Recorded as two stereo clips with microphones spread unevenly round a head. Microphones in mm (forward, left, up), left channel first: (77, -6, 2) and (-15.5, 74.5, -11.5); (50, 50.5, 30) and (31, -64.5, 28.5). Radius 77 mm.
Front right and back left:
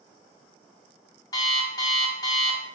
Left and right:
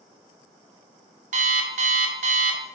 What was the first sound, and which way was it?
An alarm clock, 95° right.